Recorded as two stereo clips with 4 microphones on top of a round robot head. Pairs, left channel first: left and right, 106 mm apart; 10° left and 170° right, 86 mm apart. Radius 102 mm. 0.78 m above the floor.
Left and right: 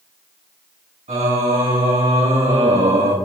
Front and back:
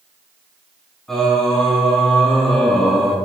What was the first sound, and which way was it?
Singing, 75° right.